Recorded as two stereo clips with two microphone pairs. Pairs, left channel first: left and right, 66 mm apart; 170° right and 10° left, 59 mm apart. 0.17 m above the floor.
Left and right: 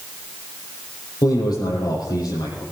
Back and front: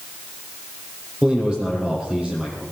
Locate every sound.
1.2 s a man speaking: 85° left, 6.5 m